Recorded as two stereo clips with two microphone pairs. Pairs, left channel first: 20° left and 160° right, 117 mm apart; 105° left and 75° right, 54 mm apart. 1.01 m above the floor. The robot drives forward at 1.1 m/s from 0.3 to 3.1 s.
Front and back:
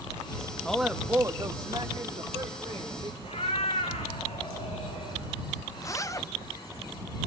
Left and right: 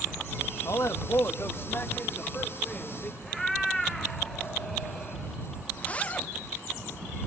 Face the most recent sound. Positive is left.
turn(degrees=55)